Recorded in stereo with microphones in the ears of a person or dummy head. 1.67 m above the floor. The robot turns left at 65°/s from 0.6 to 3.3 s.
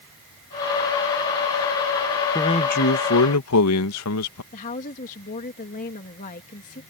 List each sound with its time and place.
2.4 s a man speaking: 160° left; by 4.4 s 100° left
4.5 s a woman speaking: 40° left (ahead or behind)